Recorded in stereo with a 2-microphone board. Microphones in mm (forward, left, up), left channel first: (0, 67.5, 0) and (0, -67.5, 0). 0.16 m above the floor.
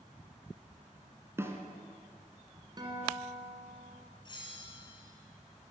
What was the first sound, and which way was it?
A snare drum, 20° right (ahead or behind).